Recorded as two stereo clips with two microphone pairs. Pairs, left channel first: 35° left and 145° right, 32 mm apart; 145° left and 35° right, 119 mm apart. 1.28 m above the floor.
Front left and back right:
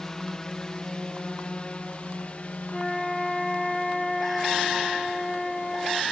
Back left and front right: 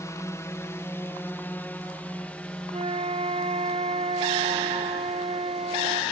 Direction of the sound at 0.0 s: 100° left.